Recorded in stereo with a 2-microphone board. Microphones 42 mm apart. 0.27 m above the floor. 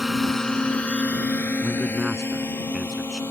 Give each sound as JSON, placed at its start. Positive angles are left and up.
{"t": 0.0, "sound": "a drone", "side_deg": -5}
{"t": 1.6, "sound": "a man speaking", "side_deg": 15}